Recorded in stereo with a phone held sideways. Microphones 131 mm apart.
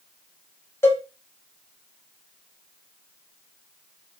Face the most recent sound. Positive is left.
turn(degrees=20)  # may be behind; listen again after turning